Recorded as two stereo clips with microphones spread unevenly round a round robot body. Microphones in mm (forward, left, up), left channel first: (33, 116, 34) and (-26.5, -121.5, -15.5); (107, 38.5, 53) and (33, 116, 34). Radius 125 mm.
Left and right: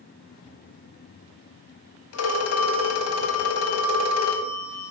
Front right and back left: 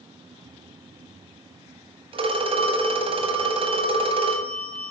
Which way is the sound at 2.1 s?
110° left.